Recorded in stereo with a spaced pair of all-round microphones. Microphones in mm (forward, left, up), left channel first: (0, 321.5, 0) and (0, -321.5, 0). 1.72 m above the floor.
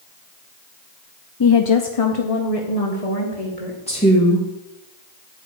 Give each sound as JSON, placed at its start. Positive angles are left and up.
{"t": 1.4, "sound": "a woman speaking", "side_deg": 35, "distance_m": 0.5}
{"t": 3.9, "sound": "a woman speaking", "side_deg": 10, "distance_m": 2.0}